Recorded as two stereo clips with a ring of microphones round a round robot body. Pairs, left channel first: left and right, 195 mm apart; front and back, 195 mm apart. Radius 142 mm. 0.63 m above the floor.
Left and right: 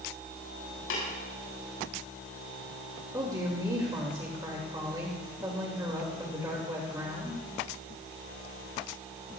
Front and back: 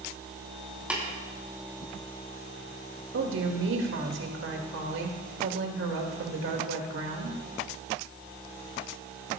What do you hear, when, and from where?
0.9 s tapping: 95° left, 6.5 m
3.1 s a woman speaking: 165° right, 2 m